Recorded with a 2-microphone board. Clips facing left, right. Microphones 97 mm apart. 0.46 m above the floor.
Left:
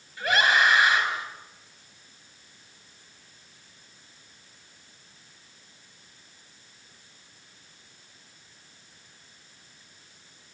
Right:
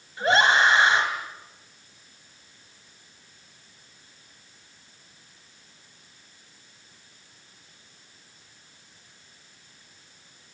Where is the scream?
30° right (ahead or behind), 2.5 m.